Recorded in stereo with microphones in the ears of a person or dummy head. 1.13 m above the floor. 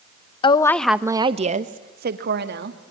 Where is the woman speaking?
30° left (ahead or behind), 0.7 m; by 2.8 s 55° right (ahead or behind), 1.9 m.